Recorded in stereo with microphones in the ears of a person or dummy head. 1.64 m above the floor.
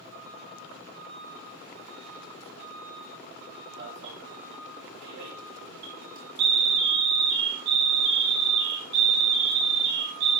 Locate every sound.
3.8 s an alarm: 75° right (ahead or behind), 4.5 m